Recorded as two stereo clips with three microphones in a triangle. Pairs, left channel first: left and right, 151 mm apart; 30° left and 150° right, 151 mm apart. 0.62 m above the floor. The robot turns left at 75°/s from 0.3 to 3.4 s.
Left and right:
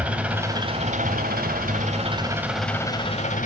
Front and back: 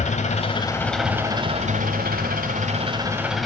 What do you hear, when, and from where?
0.0 s an engine running: 10° right, 2.5 m; by 3.5 s 120° left, 2.5 m